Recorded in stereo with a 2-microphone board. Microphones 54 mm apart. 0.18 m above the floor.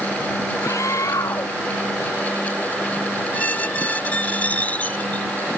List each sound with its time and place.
0.6 s a scream: 75° left (ahead or behind)
3.3 s a squeak: 30° left (ahead or behind)